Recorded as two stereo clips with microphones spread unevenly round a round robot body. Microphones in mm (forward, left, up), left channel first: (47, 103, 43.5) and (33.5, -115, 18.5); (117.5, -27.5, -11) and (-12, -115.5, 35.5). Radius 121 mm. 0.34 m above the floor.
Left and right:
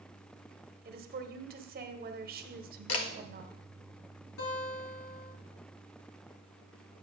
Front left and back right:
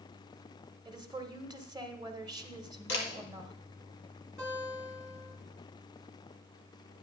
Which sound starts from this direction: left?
A camera shutter, at 2.9 s.